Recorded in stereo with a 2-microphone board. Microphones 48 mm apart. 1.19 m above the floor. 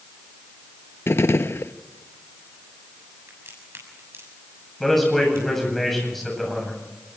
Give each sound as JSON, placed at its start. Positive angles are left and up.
{"t": 1.1, "sound": "a gunshot", "side_deg": 65, "distance_m": 0.7}
{"t": 3.3, "sound": "a crack", "side_deg": -70, "distance_m": 7.0}
{"t": 4.8, "sound": "a man speaking", "side_deg": 5, "distance_m": 8.5}